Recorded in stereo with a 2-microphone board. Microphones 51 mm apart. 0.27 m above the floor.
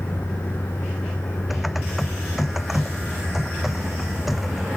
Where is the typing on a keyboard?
Centre (ahead or behind).